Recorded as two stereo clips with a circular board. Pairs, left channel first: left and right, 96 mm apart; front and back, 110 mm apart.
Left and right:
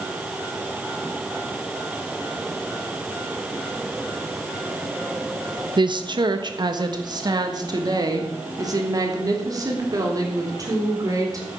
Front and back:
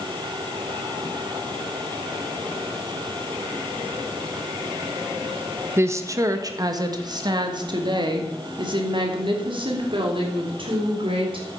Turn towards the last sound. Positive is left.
turn(degrees=-145)